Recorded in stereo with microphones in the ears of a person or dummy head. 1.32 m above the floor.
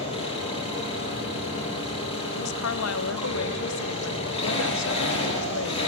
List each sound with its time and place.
0.0 s an engine running: 25° left (ahead or behind), 8 m
2.4 s a woman speaking: 75° left (ahead or behind), 0.8 m